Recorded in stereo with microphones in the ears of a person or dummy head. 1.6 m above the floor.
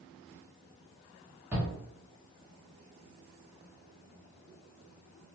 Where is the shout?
5° right (ahead or behind), 0.9 m.